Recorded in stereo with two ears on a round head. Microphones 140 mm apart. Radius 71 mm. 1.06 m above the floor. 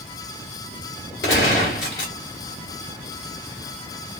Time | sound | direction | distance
1.2 | a gunshot | 70° left (ahead or behind) | 1.5 m